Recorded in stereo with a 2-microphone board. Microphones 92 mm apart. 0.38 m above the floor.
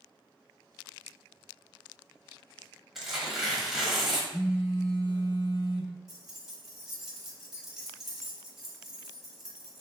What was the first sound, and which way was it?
Tearing paper, 5° right (ahead or behind).